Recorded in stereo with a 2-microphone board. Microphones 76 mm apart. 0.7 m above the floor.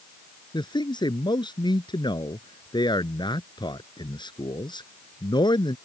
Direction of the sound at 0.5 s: 75° left (ahead or behind).